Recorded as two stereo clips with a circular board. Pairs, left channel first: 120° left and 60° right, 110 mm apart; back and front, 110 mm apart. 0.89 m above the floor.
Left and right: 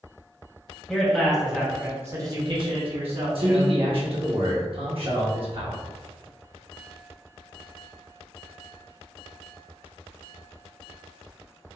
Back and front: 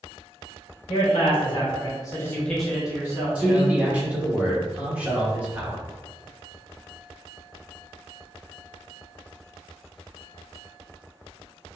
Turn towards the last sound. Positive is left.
turn(degrees=-75)